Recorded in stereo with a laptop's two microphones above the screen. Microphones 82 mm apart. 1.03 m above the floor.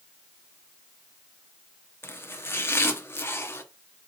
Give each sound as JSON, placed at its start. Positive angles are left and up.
{"t": 2.0, "sound": "chopping", "side_deg": 30, "distance_m": 0.5}